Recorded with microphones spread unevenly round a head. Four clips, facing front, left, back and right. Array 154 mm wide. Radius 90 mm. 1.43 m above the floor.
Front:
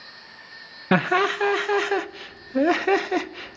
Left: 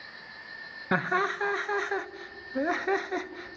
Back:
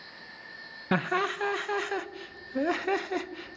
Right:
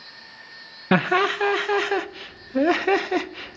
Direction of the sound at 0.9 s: 40° right.